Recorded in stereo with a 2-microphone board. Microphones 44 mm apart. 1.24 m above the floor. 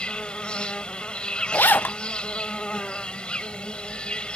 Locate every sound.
0.0 s an insect: 25° left (ahead or behind)
1.5 s a zipper: 50° left (ahead or behind)